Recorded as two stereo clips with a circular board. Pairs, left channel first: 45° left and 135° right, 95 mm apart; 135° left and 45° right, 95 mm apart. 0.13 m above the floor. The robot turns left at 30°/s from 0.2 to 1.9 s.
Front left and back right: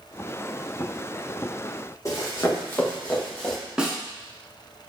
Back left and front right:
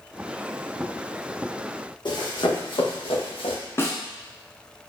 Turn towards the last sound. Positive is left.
turn(degrees=155)